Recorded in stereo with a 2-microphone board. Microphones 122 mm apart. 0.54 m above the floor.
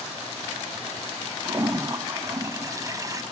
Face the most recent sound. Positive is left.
turn(degrees=-25)  # may be behind; listen again after turning